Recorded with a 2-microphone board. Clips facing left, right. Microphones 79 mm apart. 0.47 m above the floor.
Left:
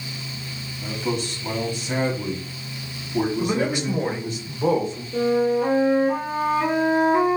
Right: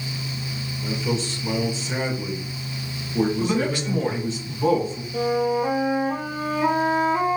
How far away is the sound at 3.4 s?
About 2 m.